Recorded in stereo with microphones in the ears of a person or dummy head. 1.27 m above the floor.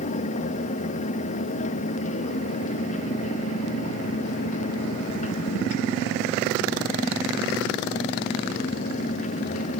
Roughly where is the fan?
Left.